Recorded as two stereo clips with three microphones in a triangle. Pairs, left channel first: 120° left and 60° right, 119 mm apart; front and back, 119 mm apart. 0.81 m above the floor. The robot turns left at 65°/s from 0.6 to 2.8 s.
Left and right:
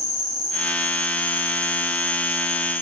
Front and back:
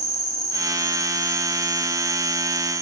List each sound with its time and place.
0.0 s an insect: 60° right, 4 m; by 2.8 s 160° left, 4 m